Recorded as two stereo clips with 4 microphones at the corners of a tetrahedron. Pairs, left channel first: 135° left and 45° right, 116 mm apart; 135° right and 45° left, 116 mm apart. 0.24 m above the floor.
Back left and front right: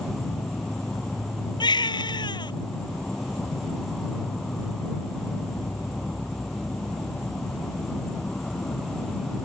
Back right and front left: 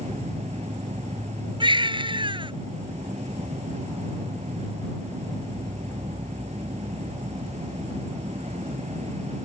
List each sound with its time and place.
0.0 s an insect: 45° left
1.6 s a baby crying: 85° left